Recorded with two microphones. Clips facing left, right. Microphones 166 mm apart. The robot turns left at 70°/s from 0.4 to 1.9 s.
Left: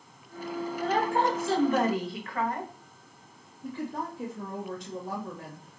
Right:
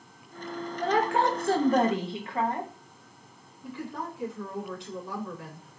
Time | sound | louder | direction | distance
0.8 | a woman speaking | right 2 dB | 80° right | 1.0 m
3.6 | a woman speaking | left 2 dB | 40° left (ahead or behind) | 2.5 m